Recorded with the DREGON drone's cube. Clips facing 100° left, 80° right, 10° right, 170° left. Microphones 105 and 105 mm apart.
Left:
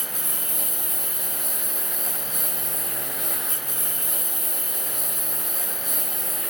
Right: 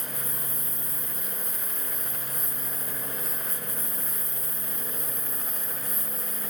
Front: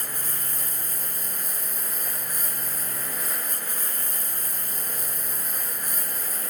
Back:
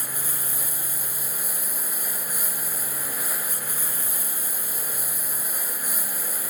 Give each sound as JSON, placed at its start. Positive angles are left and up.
{"t": 0.0, "sound": "a lawn mower", "azimuth_deg": 85}